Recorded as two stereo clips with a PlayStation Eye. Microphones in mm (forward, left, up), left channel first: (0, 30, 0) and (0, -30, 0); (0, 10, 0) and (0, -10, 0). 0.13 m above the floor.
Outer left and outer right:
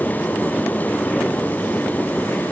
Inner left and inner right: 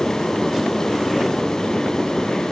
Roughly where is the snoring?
No snoring in this recording.